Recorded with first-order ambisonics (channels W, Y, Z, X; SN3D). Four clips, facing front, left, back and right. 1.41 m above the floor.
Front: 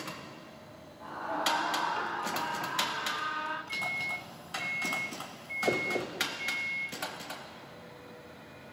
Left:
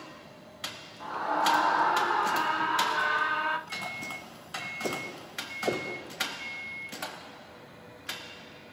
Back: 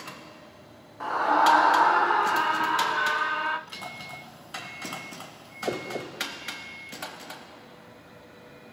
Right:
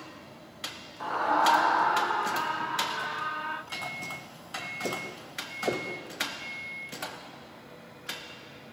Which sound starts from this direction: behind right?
A scream, at 1.0 s.